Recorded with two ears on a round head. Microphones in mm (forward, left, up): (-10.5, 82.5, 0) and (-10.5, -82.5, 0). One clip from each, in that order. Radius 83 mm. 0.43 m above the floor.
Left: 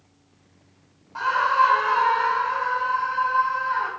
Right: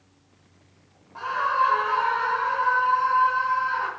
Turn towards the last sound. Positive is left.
turn(degrees=15)  # may be behind; listen again after turning